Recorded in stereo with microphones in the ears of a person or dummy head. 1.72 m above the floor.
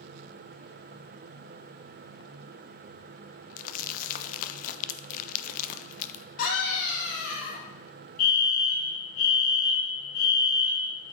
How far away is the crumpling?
About 0.5 m.